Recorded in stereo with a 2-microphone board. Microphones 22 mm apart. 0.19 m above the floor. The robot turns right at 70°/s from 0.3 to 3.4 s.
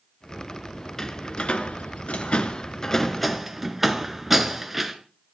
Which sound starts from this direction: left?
A door slam, at 1.0 s.